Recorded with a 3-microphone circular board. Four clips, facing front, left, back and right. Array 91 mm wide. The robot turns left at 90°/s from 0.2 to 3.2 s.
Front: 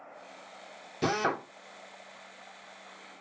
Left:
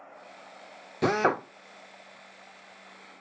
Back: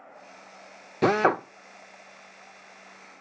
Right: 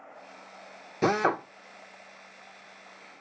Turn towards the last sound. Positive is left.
turn(degrees=-5)